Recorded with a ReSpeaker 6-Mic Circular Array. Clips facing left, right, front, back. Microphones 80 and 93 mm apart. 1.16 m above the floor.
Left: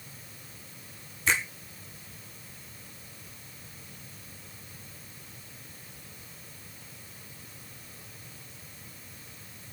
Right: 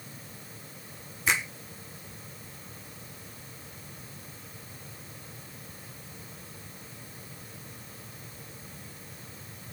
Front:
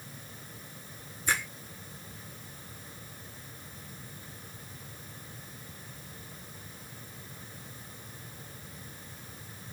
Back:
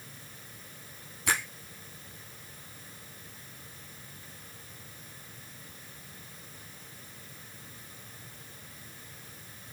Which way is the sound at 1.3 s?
170° right.